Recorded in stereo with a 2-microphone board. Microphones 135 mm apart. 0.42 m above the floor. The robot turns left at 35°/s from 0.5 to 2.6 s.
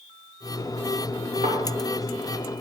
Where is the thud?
55° right (ahead or behind), 5.5 m; by 1.6 s 60° right (ahead or behind), 5.5 m.